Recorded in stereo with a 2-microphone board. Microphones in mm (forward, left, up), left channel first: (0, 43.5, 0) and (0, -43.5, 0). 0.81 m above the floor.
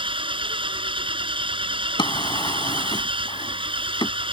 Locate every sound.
0.0 s an engine running: 75° right (ahead or behind)
2.0 s a drawer: 60° left (ahead or behind)